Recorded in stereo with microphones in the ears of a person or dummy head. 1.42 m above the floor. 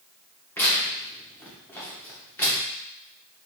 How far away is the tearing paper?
About 1.1 m.